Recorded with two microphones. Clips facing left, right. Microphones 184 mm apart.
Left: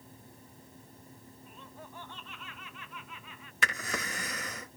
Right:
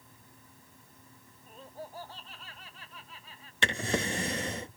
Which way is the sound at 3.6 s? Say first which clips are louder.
Right 7 dB; 30° right (ahead or behind).